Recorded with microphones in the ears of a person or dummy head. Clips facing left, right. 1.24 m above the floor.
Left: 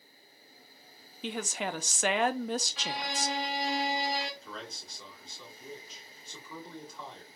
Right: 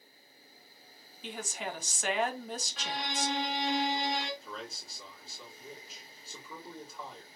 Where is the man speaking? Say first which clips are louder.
Even; 5° left (ahead or behind), 2 m.